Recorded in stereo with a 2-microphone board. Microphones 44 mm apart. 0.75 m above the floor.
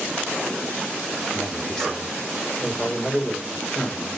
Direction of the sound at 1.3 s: 10° left (ahead or behind).